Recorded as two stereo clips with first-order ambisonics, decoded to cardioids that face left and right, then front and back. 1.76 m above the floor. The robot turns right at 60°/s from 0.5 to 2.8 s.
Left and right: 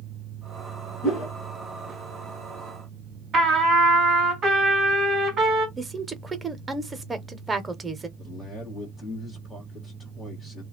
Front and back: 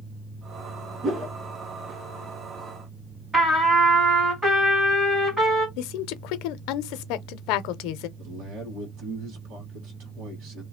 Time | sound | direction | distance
1.0 | a whoosh | 120° left | 1.9 m
3.3 | a trumpet | 120° right | 1.7 m
5.8 | a woman speaking | 10° right | 0.7 m
8.2 | a man speaking | straight behind | 2 m